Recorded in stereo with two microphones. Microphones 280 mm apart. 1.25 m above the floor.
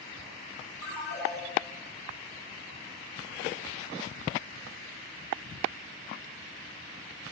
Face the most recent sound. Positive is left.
turn(degrees=75)  # may be behind; listen again after turning